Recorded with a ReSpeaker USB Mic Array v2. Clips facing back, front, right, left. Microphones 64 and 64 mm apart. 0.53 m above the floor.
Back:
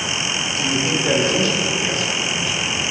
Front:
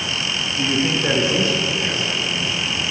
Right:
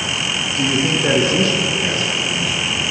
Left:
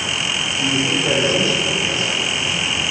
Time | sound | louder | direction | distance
0.6 | a man speaking | front 2 dB, right 2 dB | 65° right | 6 m